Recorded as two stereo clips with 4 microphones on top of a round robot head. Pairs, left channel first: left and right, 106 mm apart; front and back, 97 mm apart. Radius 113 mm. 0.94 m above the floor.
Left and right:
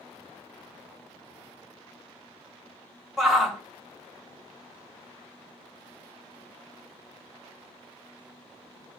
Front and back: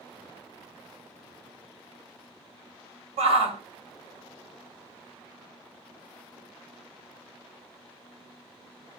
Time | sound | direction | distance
3.2 | a shout | straight behind | 3 m